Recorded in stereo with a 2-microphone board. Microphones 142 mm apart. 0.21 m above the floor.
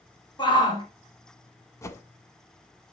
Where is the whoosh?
20° left (ahead or behind), 0.6 m.